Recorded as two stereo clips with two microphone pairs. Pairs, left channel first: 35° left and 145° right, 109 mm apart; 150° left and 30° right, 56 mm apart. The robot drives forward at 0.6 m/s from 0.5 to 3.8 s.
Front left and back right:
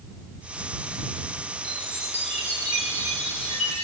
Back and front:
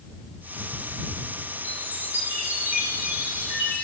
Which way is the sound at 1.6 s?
30° left.